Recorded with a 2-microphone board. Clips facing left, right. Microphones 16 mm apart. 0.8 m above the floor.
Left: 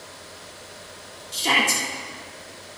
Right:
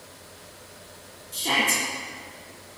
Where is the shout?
55° left (ahead or behind), 1.9 m.